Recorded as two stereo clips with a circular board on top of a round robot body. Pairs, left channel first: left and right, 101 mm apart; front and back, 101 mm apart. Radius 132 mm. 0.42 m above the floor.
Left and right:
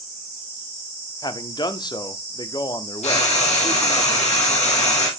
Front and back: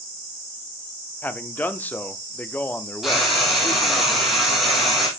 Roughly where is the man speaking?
Ahead left.